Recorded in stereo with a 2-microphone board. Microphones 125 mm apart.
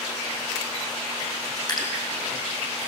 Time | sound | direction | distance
1.7 | dripping | 35° left (ahead or behind) | 5.5 m